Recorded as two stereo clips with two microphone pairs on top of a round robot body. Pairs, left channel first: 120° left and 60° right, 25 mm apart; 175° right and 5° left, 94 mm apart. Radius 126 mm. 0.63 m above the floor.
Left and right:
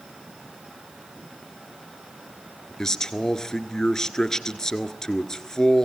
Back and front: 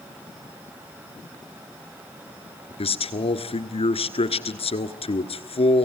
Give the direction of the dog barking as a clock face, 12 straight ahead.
I don't hear a dog barking.